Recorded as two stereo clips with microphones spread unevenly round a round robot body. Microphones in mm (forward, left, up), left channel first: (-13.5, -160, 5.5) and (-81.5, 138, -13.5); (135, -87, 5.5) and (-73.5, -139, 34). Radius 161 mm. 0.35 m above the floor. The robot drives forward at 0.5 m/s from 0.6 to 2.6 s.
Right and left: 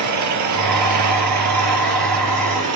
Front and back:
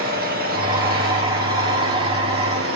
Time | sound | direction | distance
0.0 | an engine running | 135° left | 4.5 m